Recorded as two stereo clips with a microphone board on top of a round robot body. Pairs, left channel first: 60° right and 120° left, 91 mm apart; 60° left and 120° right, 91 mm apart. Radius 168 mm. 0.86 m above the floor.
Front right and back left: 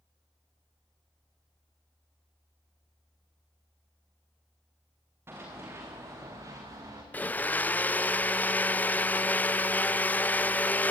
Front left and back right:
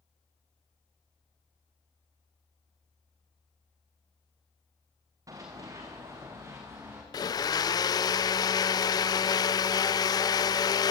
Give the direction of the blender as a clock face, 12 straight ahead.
12 o'clock.